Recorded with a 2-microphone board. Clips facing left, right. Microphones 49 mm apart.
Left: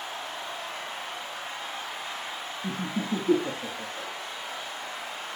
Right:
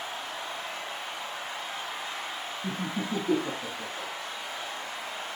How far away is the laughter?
About 1.9 m.